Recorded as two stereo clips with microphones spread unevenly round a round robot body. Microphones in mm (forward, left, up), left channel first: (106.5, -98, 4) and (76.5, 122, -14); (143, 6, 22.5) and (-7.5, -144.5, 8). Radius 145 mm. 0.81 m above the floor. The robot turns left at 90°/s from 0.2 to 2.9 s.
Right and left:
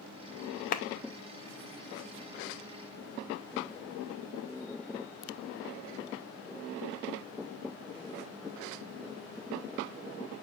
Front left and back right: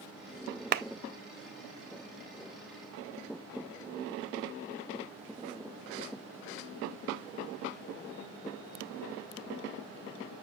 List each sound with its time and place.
0.7 s a clap: 135° right, 0.5 m; by 0.8 s 145° right, 0.5 m